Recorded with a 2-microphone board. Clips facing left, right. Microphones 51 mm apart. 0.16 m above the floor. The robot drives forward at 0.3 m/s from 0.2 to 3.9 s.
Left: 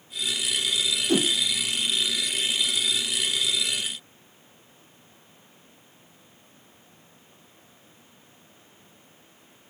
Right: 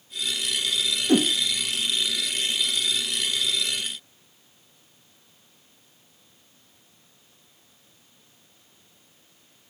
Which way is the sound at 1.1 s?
25° right (ahead or behind).